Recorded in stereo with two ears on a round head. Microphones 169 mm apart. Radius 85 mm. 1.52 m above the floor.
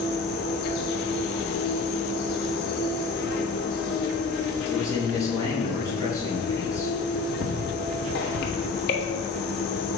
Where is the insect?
60° left (ahead or behind), 1.3 m.